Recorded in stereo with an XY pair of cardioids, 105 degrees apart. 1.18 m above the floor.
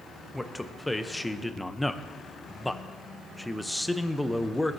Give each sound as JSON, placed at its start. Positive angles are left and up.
{"t": 0.3, "sound": "a man speaking", "azimuth_deg": 10, "distance_m": 0.8}